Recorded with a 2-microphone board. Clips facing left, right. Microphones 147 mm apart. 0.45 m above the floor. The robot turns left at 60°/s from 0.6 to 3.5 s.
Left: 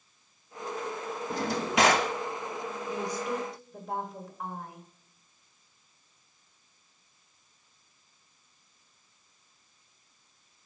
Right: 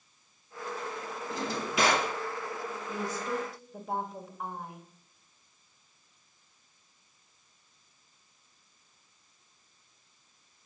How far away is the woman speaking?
About 1.5 m.